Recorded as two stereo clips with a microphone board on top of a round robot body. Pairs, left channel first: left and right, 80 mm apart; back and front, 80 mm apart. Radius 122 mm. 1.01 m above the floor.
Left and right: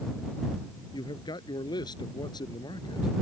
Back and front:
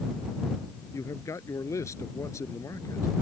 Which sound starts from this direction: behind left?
A man speaking, at 0.9 s.